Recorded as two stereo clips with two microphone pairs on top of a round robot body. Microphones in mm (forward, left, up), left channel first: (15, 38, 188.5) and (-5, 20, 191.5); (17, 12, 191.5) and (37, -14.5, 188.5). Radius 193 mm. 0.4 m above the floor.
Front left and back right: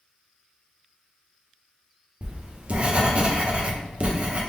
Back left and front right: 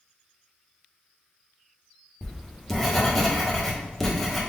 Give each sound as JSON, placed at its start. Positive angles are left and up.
{"t": 2.2, "sound": "writing", "azimuth_deg": -145, "distance_m": 1.4}